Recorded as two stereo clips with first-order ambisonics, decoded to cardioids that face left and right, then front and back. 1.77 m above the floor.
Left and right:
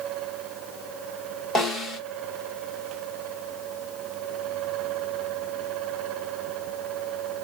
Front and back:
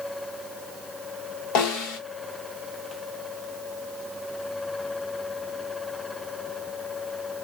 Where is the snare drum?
20° left, 1.5 m.